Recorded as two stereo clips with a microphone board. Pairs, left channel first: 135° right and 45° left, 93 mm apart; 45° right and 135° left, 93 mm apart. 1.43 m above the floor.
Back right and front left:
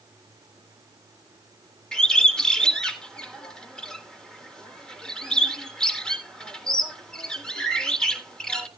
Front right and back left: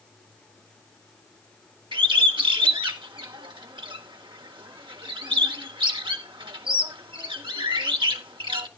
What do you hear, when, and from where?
1.9 s a bird: 145° left, 1.4 m